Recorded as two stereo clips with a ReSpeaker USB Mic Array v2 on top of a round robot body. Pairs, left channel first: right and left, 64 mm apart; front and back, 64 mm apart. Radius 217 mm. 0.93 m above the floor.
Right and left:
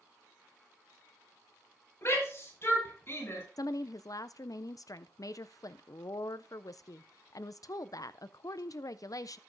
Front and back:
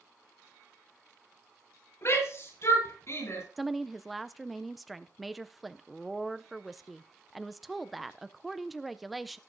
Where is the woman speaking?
90° right, 0.5 m.